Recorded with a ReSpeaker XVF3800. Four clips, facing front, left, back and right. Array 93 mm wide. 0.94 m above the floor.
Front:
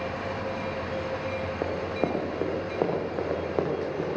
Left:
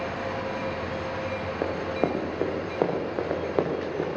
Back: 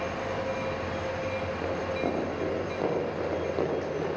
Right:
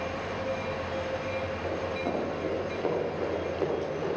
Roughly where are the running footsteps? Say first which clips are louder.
Left 4 dB, front 2 dB; ahead left.